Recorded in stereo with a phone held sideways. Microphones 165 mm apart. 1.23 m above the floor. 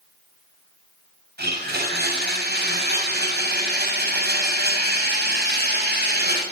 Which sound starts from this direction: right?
A blender, at 1.4 s.